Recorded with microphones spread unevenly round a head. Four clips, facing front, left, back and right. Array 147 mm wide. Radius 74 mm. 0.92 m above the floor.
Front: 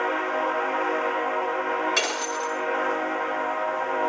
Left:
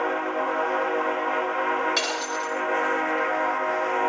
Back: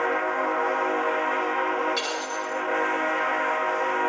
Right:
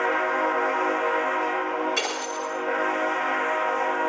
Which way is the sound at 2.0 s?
25° left.